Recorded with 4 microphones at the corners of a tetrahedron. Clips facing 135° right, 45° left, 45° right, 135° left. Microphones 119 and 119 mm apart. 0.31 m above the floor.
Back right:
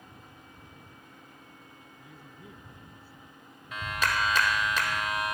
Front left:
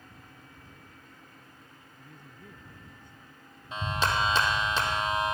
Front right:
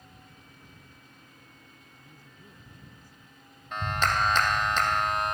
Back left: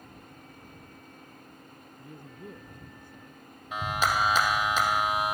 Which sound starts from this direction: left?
A clap, at 3.7 s.